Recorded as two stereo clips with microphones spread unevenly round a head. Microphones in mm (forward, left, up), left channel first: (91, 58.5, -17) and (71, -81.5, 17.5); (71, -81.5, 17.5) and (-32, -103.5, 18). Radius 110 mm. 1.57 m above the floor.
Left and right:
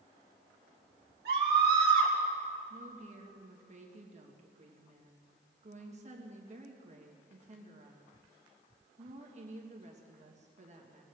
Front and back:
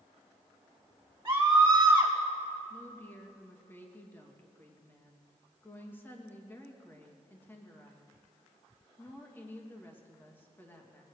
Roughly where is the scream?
Right.